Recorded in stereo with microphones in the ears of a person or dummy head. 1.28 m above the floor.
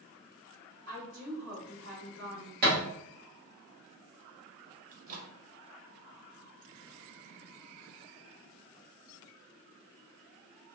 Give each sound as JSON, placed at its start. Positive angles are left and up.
{"t": 0.9, "sound": "a woman speaking", "side_deg": -75, "distance_m": 1.4}
{"t": 2.6, "sound": "a thud", "side_deg": -45, "distance_m": 1.1}
{"t": 4.9, "sound": "a microwave", "side_deg": -40, "distance_m": 0.6}